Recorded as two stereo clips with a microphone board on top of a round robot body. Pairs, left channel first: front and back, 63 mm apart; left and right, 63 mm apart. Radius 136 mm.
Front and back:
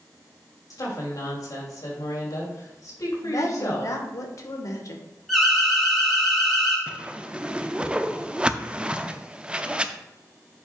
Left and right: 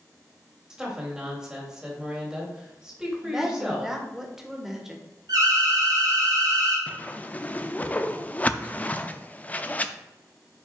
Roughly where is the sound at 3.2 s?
Ahead.